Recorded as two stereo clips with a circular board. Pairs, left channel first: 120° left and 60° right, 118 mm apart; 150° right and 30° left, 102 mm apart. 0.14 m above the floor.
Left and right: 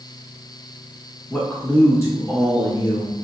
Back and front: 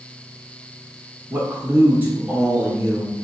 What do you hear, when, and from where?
1.3 s a man speaking: 55° left, 1.2 m; by 3.1 s 90° left, 1.8 m